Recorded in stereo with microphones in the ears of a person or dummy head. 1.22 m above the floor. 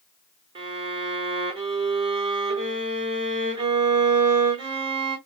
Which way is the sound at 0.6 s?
35° right (ahead or behind).